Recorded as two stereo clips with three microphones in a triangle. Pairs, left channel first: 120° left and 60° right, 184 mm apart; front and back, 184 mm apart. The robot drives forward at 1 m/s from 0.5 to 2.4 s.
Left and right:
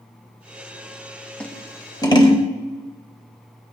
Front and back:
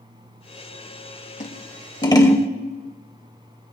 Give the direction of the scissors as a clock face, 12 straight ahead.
11 o'clock.